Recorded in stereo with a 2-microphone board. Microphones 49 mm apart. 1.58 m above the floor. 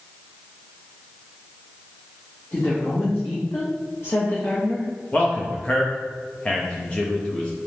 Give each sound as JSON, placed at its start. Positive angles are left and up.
{"t": 2.5, "sound": "a woman speaking", "side_deg": 75, "distance_m": 1.3}
{"t": 5.1, "sound": "a man speaking", "side_deg": 20, "distance_m": 0.6}